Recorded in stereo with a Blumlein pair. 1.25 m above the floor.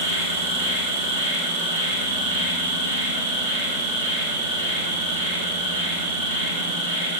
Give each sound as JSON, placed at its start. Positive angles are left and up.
{"t": 0.0, "sound": "an insect", "azimuth_deg": -70, "distance_m": 3.0}